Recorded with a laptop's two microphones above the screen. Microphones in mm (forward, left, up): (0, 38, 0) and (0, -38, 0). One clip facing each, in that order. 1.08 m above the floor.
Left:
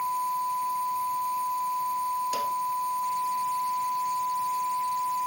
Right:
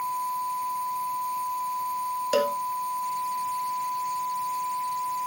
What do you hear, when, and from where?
2.3 s a cowbell: 80° right